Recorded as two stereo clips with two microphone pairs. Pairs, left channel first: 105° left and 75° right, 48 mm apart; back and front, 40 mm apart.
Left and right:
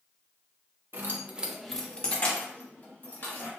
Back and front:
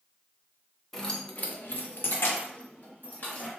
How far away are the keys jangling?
About 0.6 m.